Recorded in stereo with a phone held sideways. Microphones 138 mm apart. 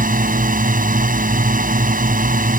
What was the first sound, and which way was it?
A drone, 80° right.